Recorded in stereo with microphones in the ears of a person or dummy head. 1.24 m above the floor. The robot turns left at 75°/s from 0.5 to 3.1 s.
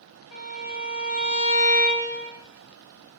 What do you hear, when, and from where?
0.3 s a violin: 105° left, 1.0 m; by 2.3 s 30° right, 1.0 m